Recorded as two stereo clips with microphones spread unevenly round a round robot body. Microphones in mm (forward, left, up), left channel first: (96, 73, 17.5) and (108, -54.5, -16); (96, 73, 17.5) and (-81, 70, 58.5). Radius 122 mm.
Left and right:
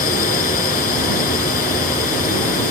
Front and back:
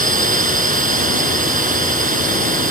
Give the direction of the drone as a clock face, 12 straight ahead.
7 o'clock.